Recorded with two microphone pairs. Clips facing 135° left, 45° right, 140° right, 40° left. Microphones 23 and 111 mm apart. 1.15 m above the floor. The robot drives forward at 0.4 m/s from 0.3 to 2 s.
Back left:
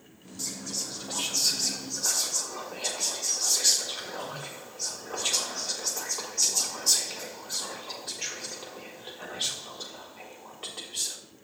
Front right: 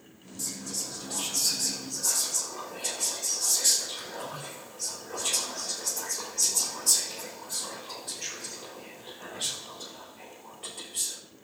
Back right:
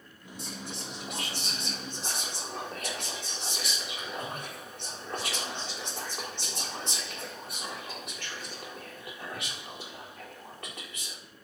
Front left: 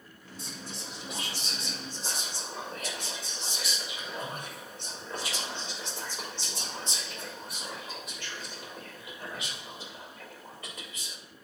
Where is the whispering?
165° right, 3.5 m.